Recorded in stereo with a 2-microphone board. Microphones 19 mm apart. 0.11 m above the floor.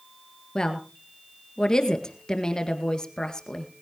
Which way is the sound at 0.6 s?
35° left (ahead or behind).